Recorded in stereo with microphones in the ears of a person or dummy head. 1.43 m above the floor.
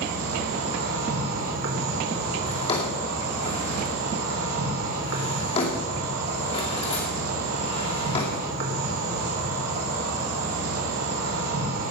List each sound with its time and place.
0.0 s an insect: 80° right, 4 m
2.5 s a drawer: 25° left (ahead or behind), 2.5 m